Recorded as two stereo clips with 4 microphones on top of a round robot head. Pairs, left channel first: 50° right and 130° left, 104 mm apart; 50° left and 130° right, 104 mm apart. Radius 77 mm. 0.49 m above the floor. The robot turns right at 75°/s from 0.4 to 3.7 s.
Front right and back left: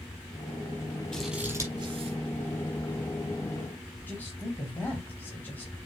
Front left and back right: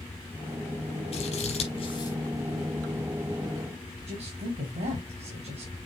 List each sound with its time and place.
1.1 s scissors: 30° left, 4.5 m; by 2.2 s 110° left, 4.5 m
4.1 s a man speaking: 125° right, 3.5 m